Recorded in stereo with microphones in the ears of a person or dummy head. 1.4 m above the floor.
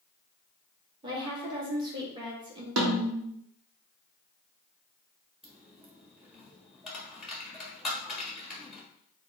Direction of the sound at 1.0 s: 25° right (ahead or behind).